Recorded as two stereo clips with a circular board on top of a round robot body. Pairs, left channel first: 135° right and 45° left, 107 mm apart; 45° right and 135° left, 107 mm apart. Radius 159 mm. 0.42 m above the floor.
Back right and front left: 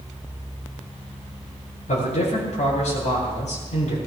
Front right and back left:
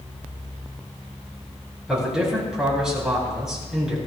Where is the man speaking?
140° right, 8.5 m.